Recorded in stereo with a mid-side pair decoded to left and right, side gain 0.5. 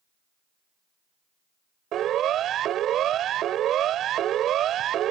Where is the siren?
60° right.